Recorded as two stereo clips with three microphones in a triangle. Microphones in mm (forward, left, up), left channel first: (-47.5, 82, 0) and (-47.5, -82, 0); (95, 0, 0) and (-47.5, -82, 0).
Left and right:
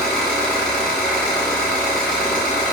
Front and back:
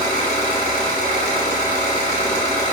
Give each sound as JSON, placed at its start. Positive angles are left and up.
{"t": 0.0, "sound": "an engine running", "azimuth_deg": 175, "distance_m": 0.9}